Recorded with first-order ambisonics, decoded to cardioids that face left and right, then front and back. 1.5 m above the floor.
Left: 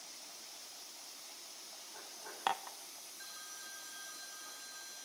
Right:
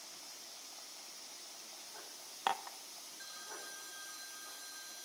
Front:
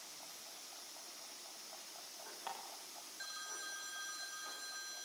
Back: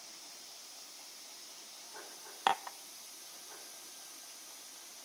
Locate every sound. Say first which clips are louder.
2.5 s dishes clattering: even, back 16 dB; straight behind, 0.8 m